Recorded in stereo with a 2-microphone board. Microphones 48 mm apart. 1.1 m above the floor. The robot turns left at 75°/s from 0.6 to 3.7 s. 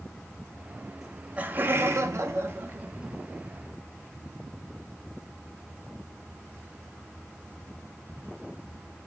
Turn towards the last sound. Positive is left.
turn(degrees=155)